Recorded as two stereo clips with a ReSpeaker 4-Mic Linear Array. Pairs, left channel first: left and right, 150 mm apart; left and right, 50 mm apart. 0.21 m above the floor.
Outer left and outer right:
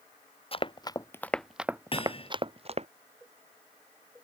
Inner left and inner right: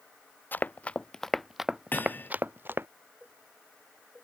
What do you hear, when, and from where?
0.5 s running footsteps: 40° left (ahead or behind); by 2.9 s 45° right (ahead or behind)
1.9 s hammering: 40° left (ahead or behind)